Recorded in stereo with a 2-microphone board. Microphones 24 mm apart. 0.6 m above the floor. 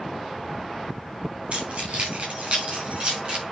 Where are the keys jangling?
65° right (ahead or behind), 4 m; by 3.4 s 55° right (ahead or behind), 5.5 m.